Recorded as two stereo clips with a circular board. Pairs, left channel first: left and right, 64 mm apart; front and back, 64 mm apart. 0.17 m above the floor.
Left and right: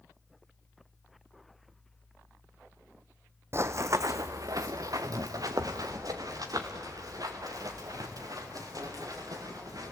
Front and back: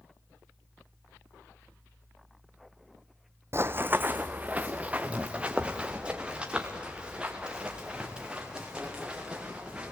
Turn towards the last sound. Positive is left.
turn(degrees=-105)